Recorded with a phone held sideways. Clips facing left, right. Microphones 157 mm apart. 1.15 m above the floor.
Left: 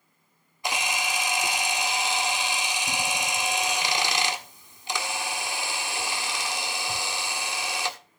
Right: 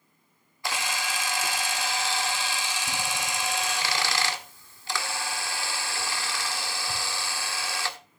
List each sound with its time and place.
0.6 s a camera shutter: 20° left (ahead or behind), 1.4 m